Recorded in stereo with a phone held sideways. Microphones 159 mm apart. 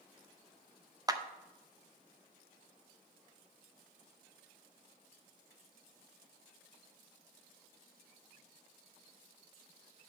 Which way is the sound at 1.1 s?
25° right (ahead or behind).